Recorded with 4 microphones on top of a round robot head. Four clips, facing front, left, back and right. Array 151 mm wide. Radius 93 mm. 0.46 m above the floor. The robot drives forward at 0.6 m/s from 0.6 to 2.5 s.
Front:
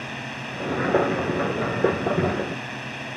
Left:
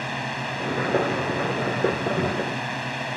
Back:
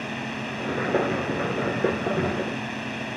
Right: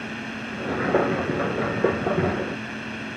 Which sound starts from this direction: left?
A drone, at 0.0 s.